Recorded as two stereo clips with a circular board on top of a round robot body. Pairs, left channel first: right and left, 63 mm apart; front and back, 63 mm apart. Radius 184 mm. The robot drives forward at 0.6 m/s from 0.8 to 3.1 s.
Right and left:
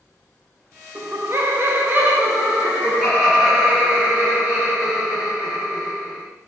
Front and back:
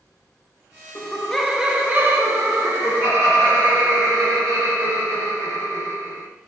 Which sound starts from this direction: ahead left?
Laughter, at 0.9 s.